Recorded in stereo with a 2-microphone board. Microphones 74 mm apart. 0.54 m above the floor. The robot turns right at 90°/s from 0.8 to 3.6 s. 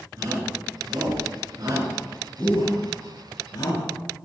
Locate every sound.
0.2 s a shout: 50° right (ahead or behind), 8 m; by 4.2 s 55° left (ahead or behind), 8 m